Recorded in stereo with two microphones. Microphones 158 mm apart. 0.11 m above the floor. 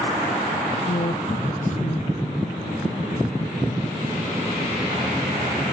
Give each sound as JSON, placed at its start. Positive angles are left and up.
{"t": 0.9, "sound": "a woman speaking", "side_deg": 50, "distance_m": 2.5}